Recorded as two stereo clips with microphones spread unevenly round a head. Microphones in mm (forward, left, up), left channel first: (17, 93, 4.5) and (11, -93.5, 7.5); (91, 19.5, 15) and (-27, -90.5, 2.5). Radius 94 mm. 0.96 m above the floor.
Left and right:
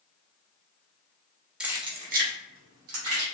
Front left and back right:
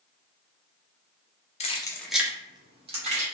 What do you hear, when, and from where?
1.6 s keys jangling: 5° right, 1.0 m; by 3.2 s 90° right, 2 m